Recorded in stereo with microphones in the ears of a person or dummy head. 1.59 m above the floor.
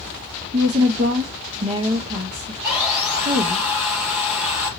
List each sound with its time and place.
0.5 s a woman speaking: 30° right (ahead or behind), 0.8 m
2.6 s sawing: 10° right (ahead or behind), 4 m